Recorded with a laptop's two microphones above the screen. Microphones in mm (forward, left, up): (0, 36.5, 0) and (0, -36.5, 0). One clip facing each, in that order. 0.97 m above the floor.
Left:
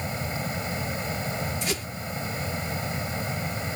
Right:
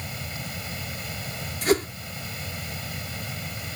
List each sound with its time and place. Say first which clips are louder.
0.0 s a fan: left 6 dB; 30° left (ahead or behind)
1.6 s a whoosh: right 9 dB; 50° right (ahead or behind)